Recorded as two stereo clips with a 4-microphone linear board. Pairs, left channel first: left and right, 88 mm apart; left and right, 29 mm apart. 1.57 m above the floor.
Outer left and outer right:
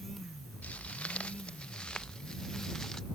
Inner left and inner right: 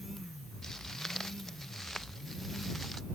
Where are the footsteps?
15° left (ahead or behind); by 3.0 s 5° left (ahead or behind).